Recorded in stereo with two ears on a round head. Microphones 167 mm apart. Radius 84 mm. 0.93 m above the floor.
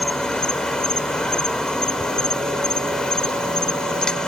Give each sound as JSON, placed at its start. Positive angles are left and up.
{"t": 0.0, "sound": "an insect", "side_deg": 5}